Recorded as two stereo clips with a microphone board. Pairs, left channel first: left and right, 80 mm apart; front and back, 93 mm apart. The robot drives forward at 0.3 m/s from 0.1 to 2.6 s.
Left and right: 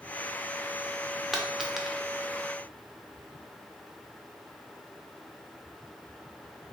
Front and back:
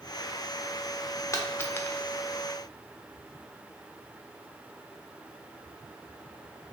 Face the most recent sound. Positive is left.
turn(degrees=-150)